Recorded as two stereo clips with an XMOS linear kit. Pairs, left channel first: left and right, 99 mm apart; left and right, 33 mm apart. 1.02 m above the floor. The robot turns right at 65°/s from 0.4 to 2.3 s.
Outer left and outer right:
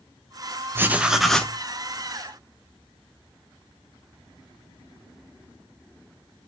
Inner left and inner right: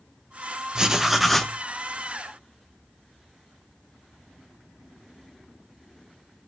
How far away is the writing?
About 0.5 m.